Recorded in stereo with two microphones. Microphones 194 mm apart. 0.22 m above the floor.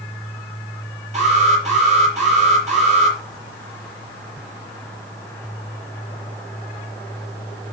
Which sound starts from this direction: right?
An alarm, at 1.1 s.